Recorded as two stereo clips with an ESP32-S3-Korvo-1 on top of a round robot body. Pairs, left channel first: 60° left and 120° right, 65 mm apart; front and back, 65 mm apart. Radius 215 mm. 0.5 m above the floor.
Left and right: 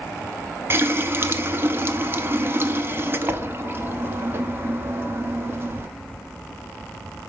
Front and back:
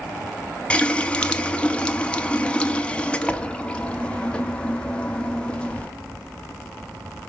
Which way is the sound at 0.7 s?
75° right.